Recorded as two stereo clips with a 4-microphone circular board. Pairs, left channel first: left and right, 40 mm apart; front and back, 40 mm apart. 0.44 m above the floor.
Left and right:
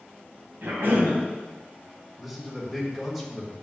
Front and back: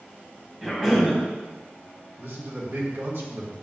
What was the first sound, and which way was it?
A cough, 105° right.